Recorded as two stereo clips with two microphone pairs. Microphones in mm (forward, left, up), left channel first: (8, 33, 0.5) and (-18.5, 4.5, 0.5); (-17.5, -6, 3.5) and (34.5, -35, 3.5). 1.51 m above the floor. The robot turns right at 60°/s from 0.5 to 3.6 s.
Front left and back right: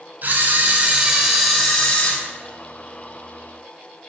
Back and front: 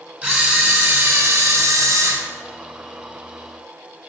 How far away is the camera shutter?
About 3 m.